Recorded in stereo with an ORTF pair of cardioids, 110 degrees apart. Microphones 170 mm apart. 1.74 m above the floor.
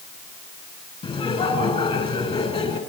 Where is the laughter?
35° left, 9.5 m.